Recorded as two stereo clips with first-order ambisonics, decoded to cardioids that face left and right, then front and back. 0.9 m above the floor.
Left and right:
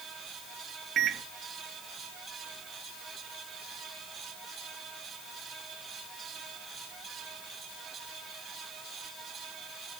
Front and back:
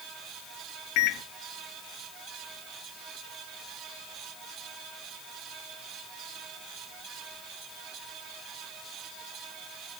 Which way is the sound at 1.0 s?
30° right.